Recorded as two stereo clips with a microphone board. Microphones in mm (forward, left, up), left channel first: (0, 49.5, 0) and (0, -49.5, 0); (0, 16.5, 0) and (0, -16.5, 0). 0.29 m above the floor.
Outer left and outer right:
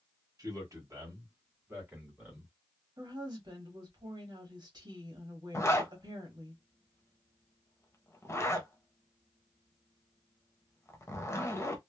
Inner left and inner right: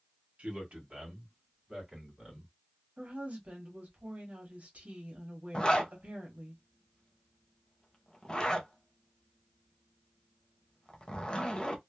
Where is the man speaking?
40° right (ahead or behind), 1.8 m; by 2.5 s 15° right (ahead or behind), 2 m.